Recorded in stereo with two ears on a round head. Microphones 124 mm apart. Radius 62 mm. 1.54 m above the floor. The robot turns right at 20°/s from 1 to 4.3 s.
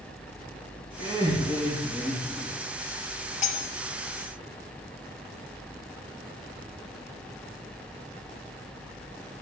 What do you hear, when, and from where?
1.0 s laughter: 30° right, 3 m; by 2.5 s straight ahead, 3 m
3.4 s cutlery clinking: 50° left (ahead or behind), 1.7 m; by 3.7 s 45° left (ahead or behind), 1.7 m